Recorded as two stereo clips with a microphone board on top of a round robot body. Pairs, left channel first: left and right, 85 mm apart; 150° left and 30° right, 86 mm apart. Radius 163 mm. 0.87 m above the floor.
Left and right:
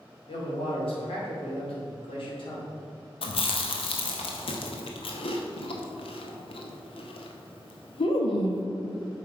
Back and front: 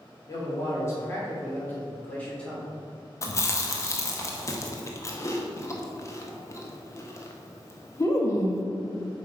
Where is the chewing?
95° left, 1.0 m.